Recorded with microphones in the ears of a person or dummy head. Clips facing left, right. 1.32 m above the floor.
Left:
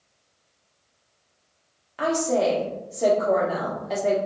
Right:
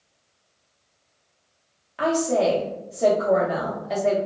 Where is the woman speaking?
5° right (ahead or behind), 0.6 m.